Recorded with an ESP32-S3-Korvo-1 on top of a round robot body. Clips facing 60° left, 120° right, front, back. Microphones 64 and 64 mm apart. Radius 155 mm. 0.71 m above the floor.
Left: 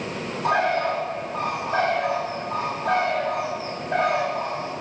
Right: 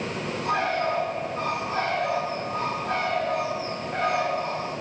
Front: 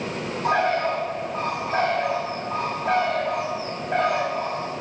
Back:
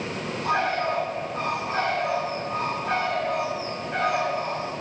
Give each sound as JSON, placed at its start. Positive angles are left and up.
{"t": 0.4, "sound": "a bird", "azimuth_deg": 65, "distance_m": 5.0}